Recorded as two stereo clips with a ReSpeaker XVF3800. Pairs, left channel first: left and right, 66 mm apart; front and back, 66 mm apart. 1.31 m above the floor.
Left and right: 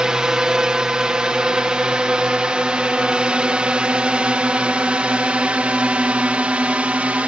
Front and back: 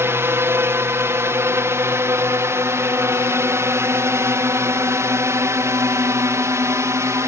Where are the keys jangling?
No keys jangling in this recording.